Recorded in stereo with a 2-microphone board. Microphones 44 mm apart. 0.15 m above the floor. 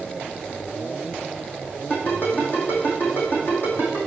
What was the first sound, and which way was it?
A ringtone, 50° left (ahead or behind).